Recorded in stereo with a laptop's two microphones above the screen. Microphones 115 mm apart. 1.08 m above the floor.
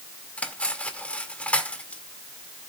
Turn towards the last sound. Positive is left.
turn(degrees=10)  # may be behind; listen again after turning